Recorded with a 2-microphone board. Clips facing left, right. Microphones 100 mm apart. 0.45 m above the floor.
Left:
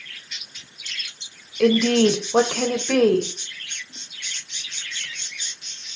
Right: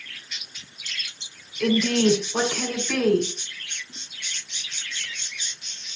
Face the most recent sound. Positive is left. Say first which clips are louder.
# left 4 dB
turn(degrees=50)  # may be behind; listen again after turning